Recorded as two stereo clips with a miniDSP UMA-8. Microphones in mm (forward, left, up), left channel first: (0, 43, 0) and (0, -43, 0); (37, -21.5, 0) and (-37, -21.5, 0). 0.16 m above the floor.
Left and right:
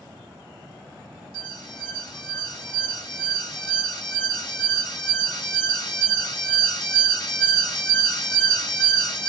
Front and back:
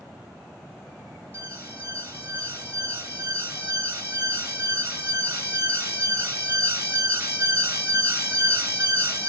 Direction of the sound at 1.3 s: 120° left.